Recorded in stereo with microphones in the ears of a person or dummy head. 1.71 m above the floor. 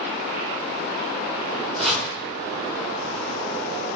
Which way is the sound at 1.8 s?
5° left (ahead or behind).